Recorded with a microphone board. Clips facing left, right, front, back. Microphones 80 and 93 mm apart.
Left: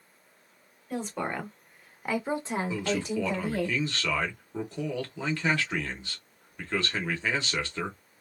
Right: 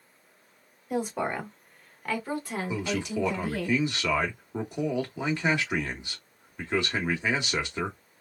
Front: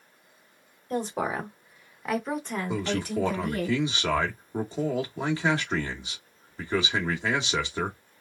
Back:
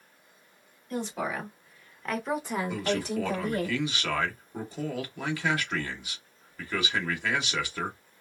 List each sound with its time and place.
0.9 s a woman speaking: 20° right, 1.1 m; by 3.7 s 130° left, 1.4 m
2.7 s a man speaking: 35° right, 0.9 m